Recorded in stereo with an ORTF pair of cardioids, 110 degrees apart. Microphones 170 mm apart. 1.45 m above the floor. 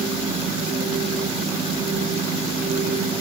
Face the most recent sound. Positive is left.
turn(degrees=-35)